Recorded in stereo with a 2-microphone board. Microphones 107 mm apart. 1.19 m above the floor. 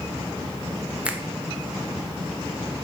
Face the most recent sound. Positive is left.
turn(degrees=-10)  # may be behind; listen again after turning